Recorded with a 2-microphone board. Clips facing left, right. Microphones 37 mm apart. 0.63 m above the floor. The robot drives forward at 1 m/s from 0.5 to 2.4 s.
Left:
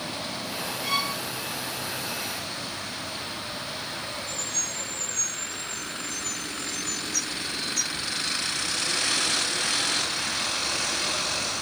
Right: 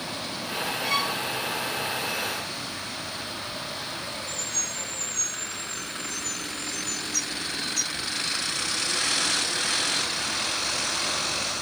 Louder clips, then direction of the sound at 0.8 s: Right 1 dB; 20° left (ahead or behind).